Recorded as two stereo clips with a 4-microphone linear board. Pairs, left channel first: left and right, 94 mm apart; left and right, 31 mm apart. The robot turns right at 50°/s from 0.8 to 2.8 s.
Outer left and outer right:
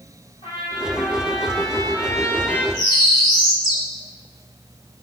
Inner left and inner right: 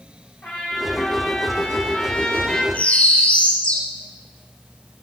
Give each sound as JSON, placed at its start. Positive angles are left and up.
{"t": 0.4, "sound": "a trumpet", "azimuth_deg": 80, "distance_m": 7.0}
{"t": 2.7, "sound": "a bird", "side_deg": 45, "distance_m": 5.0}